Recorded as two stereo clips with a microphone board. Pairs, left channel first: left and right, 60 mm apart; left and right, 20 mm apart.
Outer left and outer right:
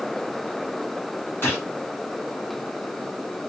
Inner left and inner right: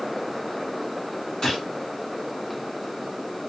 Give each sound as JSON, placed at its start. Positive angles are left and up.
{"t": 1.4, "sound": "a gunshot", "side_deg": 35, "distance_m": 1.8}